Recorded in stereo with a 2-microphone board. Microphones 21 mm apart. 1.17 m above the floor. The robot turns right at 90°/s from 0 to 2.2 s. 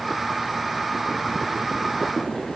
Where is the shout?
No shout in this recording.